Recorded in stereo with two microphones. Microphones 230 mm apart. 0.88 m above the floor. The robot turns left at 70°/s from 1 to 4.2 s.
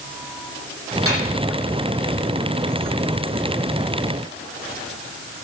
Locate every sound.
1.1 s a snare drum: 85° right, 9.5 m; by 1.2 s 75° right (ahead or behind), 9.5 m